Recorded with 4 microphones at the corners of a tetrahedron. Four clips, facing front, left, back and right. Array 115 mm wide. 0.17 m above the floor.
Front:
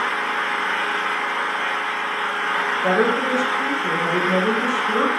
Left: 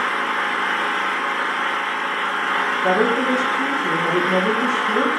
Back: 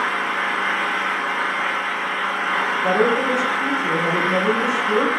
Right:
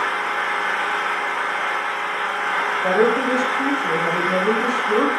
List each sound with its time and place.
0.0 s an engine running: 140° left, 0.7 m
2.8 s a woman speaking: 80° right, 1.1 m